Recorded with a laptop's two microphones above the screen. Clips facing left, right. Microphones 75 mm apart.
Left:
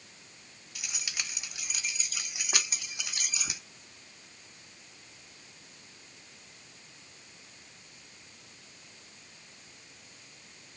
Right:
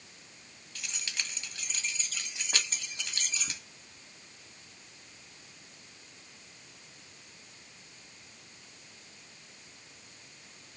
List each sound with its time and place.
0.8 s keys jangling: 10° left (ahead or behind), 1.2 m